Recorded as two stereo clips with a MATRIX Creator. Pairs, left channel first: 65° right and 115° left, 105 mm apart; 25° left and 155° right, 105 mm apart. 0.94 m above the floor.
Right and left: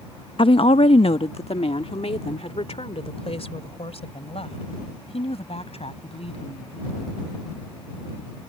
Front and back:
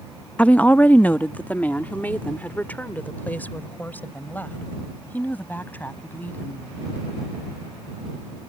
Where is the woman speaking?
55° right; by 6.8 s 50° right.